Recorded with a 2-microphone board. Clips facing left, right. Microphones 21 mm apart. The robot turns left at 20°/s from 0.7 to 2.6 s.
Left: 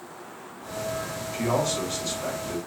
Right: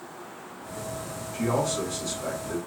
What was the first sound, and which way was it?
A man speaking, 55° left (ahead or behind).